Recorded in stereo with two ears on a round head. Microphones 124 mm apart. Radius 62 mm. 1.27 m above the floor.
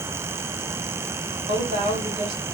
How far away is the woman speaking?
About 2 m.